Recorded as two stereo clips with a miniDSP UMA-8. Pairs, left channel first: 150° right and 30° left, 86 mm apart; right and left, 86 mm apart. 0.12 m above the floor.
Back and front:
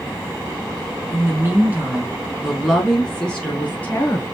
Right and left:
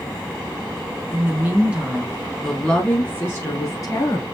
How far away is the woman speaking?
About 1.2 m.